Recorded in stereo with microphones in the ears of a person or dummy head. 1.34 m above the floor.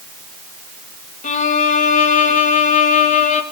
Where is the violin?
35° left (ahead or behind), 1.4 m.